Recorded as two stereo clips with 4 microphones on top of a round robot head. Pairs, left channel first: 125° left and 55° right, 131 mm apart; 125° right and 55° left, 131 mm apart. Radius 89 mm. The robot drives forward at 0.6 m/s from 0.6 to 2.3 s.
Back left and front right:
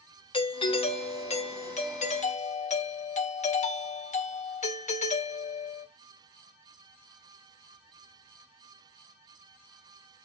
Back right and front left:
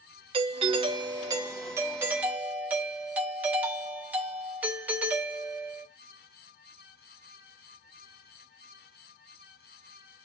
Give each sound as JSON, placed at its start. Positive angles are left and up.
{"t": 0.3, "sound": "a doorbell", "azimuth_deg": 90, "distance_m": 1.4}